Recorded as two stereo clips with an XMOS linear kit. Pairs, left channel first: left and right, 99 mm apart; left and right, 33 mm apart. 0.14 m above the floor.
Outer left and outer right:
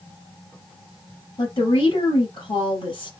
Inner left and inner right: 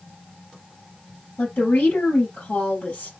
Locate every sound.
1.4 s a woman speaking: 50° left (ahead or behind), 3 m